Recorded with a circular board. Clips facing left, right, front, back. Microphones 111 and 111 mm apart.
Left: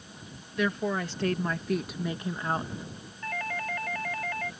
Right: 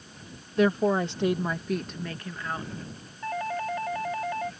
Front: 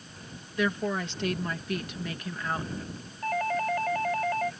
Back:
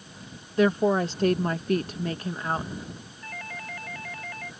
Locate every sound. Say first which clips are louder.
0.6 s a woman speaking: right 6 dB, back 7 dB; 135° right; by 2.7 s 125° left
3.2 s a doorbell: right 5 dB, front 13 dB; 25° right